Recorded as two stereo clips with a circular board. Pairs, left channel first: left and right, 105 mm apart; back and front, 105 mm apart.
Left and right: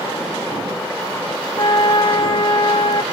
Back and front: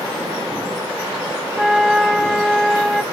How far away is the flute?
About 0.9 m.